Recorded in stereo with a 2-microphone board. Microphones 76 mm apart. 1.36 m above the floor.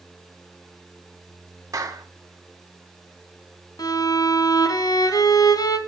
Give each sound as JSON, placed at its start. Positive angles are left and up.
{"t": 1.7, "sound": "a clap", "side_deg": -45, "distance_m": 3.0}
{"t": 3.8, "sound": "a violin", "side_deg": 55, "distance_m": 3.0}